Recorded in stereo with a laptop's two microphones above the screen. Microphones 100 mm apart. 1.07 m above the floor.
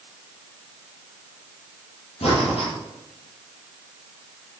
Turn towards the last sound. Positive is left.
turn(degrees=80)